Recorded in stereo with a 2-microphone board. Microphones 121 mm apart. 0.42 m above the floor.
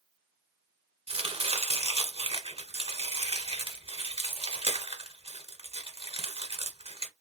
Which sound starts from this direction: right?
Chopping, at 1.1 s.